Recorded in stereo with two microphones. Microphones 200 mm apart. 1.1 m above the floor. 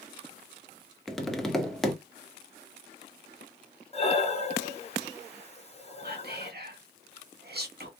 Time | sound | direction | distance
1.1 | tapping | centre (ahead or behind) | 0.6 m
3.9 | breathing | 35° left (ahead or behind) | 0.8 m
6.0 | whispering | 55° right (ahead or behind) | 1.3 m